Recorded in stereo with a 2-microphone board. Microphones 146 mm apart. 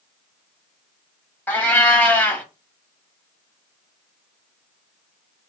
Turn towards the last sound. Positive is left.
turn(degrees=15)  # may be behind; listen again after turning